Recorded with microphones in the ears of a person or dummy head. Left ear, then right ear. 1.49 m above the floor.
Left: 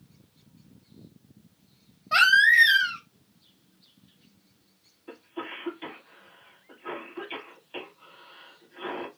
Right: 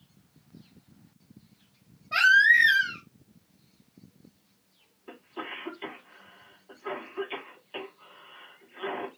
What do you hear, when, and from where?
2.1 s a baby crying: 70° left (ahead or behind), 1.5 m
5.1 s a cough: centre (ahead or behind), 1.8 m